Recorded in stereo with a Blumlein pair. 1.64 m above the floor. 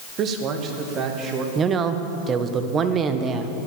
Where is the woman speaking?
25° right, 1.3 m.